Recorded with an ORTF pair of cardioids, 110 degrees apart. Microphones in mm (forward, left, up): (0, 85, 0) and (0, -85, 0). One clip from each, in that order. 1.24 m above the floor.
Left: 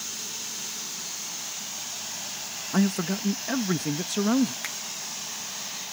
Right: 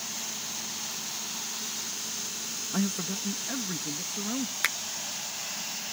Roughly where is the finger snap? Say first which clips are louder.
Right 6 dB; ahead right.